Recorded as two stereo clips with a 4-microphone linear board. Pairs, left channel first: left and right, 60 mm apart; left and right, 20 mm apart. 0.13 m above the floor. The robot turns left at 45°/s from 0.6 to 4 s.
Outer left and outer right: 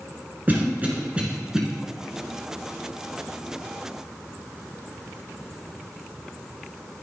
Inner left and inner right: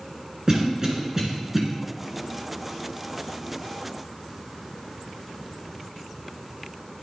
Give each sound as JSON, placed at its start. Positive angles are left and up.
{"t": 0.5, "sound": "a cough", "side_deg": -30, "distance_m": 1.5}